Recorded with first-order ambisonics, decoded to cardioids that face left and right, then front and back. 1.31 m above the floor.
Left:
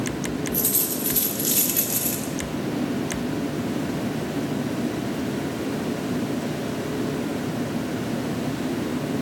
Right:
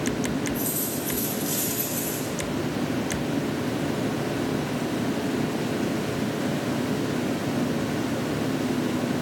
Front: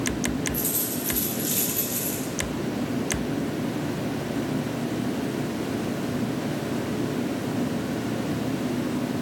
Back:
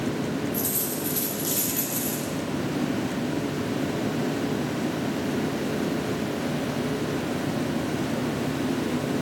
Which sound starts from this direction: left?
A dropped coin, at 0.5 s.